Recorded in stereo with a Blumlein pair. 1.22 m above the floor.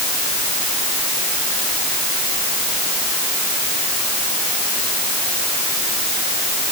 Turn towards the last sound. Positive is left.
No sound to turn to.